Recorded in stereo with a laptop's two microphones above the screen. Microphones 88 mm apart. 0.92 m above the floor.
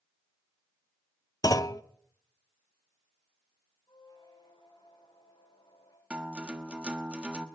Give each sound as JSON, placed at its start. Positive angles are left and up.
{"t": 1.4, "sound": "a clunk", "side_deg": 45, "distance_m": 0.7}
{"t": 3.9, "sound": "a squeak", "side_deg": 60, "distance_m": 8.5}
{"t": 6.1, "sound": "a guitar", "side_deg": -15, "distance_m": 1.2}